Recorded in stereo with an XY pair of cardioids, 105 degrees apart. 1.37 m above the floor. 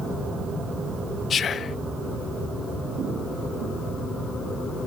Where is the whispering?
50° left, 0.6 m.